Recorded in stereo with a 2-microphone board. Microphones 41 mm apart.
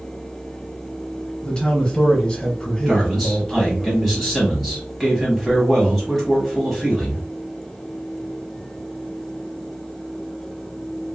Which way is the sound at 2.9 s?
5° right (ahead or behind).